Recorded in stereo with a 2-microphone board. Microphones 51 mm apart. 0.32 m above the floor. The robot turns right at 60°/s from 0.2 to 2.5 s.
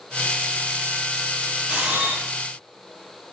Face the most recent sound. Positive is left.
turn(degrees=-105)